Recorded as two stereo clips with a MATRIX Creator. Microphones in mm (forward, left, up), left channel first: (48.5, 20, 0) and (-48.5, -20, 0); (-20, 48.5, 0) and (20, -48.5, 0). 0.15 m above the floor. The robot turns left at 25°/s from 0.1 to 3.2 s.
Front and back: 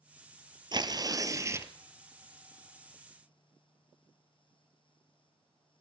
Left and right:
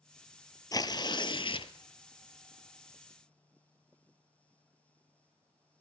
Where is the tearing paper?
165° left, 0.7 m; by 1.7 s 140° left, 0.7 m.